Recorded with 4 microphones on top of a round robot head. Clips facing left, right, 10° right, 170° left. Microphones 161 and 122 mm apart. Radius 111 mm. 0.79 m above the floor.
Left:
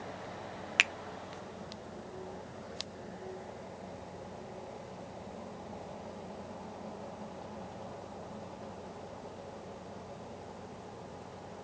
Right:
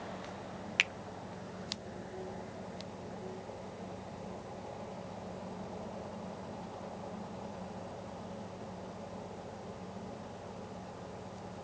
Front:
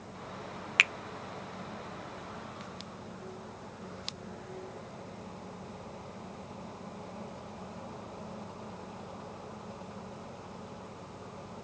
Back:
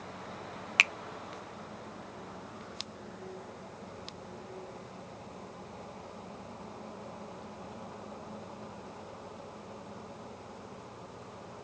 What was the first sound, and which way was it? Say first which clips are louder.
A finger snap: left 3 dB, even; 115° left.